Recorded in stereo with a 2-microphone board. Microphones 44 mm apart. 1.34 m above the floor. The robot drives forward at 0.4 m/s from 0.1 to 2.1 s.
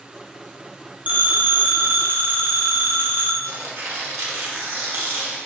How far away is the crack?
I don't hear a crack.